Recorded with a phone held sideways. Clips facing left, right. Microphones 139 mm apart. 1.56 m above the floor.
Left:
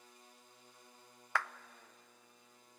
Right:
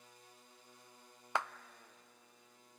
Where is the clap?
20° right (ahead or behind), 0.5 m.